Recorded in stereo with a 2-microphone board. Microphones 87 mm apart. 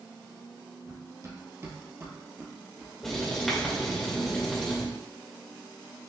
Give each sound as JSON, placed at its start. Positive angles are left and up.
{"t": 0.8, "sound": "running footsteps", "side_deg": -45, "distance_m": 1.2}
{"t": 3.0, "sound": "writing", "side_deg": 5, "distance_m": 1.3}